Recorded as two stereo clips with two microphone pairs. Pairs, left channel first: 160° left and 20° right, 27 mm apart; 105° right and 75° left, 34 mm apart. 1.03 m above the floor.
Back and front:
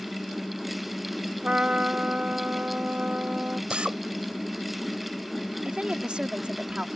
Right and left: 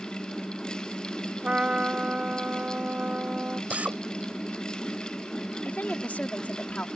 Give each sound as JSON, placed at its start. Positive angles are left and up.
{"t": 1.4, "sound": "a trumpet", "azimuth_deg": 20}
{"t": 3.7, "sound": "a drill", "azimuth_deg": 30}
{"t": 5.7, "sound": "a woman speaking", "azimuth_deg": -65}